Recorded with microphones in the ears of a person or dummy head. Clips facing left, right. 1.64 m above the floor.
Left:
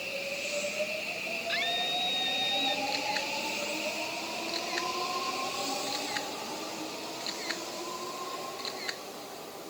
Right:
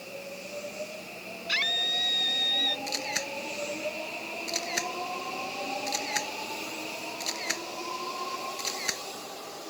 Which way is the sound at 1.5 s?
65° right (ahead or behind).